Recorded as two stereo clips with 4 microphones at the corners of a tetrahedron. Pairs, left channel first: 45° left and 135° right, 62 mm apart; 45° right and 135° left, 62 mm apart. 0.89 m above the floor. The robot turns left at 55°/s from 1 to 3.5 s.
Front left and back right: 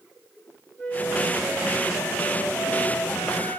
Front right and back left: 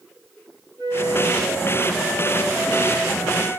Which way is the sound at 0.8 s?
120° left.